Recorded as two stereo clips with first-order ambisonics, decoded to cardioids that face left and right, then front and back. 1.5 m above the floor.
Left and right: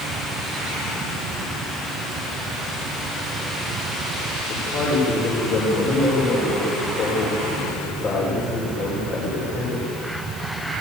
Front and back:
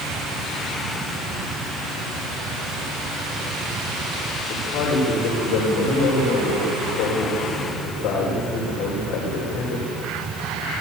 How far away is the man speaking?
About 6 m.